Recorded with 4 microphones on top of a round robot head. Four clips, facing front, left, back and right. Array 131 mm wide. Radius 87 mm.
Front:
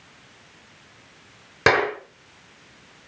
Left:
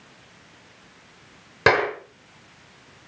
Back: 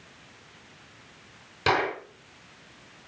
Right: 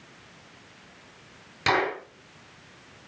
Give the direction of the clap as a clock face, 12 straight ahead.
11 o'clock.